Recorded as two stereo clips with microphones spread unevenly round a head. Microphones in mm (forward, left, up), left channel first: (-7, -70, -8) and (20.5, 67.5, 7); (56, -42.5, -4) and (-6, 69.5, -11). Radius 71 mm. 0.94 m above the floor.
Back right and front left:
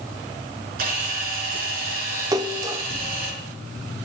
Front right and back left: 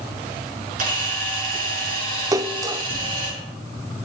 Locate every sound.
0.8 s a camera shutter: 110° left, 5.5 m
2.3 s a splash: 80° left, 0.5 m